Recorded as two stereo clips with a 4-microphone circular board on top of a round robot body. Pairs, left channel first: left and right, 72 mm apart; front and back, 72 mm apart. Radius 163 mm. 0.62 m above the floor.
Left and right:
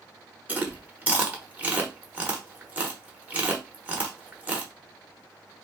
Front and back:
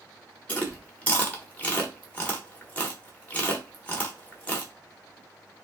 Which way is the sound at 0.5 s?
45° right.